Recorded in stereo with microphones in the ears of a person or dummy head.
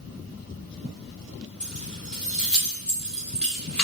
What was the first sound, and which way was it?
Keys jangling, 5° left (ahead or behind).